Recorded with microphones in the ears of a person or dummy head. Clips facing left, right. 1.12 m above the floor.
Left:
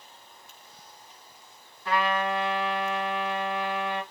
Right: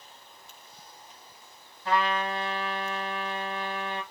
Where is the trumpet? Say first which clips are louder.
Left 1 dB; 25° right (ahead or behind), 1.5 m.